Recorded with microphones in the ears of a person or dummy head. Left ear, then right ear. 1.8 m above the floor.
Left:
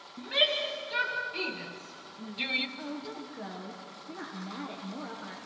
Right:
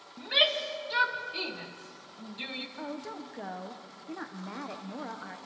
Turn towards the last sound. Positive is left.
turn(degrees=-30)  # may be behind; listen again after turning